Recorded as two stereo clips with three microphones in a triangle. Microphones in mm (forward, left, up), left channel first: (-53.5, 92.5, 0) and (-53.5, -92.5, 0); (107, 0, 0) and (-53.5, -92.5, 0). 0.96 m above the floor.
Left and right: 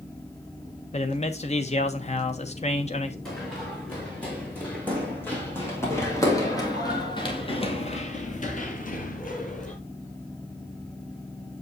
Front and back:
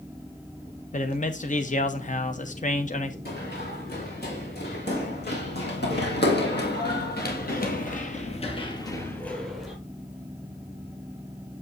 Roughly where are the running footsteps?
Ahead.